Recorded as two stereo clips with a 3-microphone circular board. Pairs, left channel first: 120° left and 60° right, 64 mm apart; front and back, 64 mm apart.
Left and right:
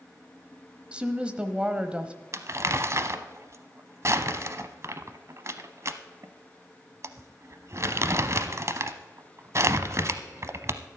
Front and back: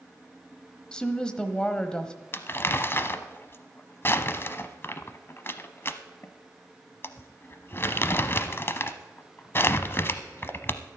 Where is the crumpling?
40° right, 0.7 m.